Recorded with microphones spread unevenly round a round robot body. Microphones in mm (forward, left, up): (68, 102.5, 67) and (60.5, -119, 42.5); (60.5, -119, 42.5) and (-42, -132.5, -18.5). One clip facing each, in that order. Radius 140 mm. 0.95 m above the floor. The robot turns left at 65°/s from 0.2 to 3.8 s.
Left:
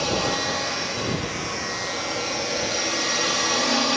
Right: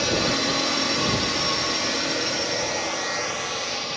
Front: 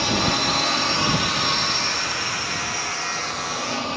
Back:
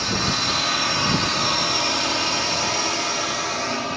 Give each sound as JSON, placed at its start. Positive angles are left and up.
{"t": 0.0, "sound": "a drone", "azimuth_deg": -30}